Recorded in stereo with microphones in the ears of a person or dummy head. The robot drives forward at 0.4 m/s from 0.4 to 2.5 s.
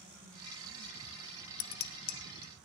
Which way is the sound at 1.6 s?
55° left (ahead or behind).